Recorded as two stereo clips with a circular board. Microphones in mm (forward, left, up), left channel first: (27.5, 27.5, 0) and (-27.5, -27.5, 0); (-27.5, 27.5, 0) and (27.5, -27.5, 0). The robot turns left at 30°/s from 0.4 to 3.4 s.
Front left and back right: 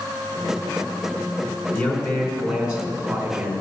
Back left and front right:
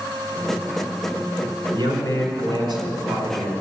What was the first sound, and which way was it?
A man speaking, 25° right.